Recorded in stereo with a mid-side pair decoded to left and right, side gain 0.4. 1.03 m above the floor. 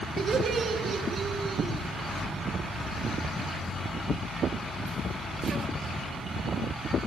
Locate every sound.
0.2 s laughter: 55° right, 2 m